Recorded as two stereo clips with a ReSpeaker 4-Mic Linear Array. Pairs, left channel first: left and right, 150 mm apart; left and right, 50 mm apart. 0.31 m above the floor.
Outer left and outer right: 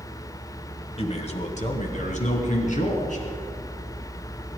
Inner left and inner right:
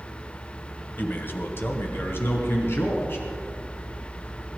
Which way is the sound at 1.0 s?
40° left (ahead or behind).